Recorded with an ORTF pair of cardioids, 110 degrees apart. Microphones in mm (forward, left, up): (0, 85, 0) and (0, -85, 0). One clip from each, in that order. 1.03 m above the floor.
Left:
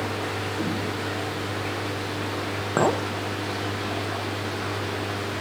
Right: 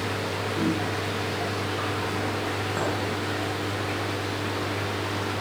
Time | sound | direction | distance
0.6 | a whoosh | 60° right | 3 m
2.8 | a clink | 40° left | 0.5 m